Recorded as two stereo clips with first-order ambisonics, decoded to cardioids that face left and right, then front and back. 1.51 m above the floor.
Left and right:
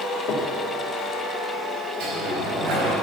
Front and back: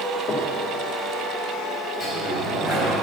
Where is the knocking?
60° left, 1.6 m.